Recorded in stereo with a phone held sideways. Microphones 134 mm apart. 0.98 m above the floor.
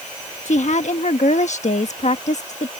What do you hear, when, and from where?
0.5 s a woman speaking: 60° left (ahead or behind)